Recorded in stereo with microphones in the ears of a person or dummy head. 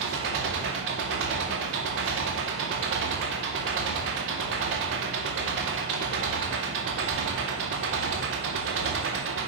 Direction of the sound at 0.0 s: 70° right (ahead or behind).